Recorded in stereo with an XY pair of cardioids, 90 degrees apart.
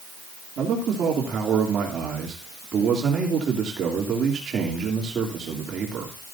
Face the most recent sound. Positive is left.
turn(degrees=-65)